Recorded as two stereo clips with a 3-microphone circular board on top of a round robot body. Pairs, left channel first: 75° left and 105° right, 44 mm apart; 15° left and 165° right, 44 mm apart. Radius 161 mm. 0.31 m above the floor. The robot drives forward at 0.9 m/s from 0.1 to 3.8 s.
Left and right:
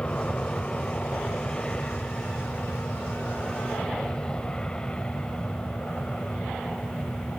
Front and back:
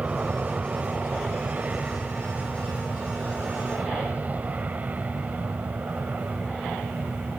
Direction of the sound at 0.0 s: 140° left.